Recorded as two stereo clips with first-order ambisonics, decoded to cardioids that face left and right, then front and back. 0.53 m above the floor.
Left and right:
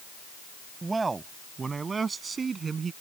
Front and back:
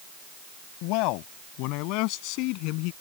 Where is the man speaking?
10° right; by 2.9 s 20° right.